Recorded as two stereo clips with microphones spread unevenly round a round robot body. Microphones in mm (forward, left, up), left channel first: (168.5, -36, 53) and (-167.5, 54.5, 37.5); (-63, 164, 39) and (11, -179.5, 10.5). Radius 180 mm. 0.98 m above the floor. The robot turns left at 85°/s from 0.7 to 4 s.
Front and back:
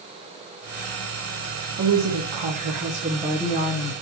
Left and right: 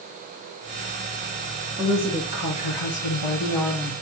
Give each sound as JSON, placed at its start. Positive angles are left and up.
{"t": 1.8, "sound": "a woman speaking", "azimuth_deg": -150, "distance_m": 1.3}